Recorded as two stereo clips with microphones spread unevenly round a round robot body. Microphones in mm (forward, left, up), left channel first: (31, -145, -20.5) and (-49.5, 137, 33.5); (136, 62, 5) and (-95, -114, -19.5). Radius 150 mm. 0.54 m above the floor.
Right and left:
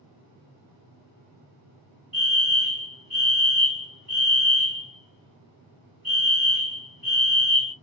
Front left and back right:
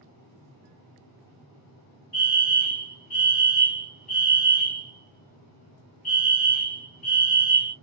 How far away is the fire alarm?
About 1.9 m.